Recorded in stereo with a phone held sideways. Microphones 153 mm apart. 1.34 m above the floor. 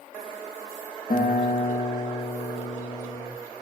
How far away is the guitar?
About 0.8 m.